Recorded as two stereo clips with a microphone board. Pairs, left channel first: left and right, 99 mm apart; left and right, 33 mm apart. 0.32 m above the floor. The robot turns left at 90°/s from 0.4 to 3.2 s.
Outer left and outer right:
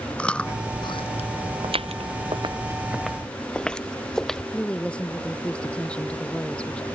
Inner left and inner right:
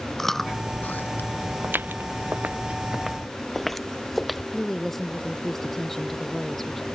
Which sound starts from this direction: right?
Footsteps, at 1.6 s.